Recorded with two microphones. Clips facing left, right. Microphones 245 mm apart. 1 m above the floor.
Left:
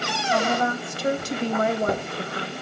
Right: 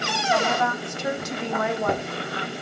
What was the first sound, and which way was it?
A woman speaking, 35° left (ahead or behind).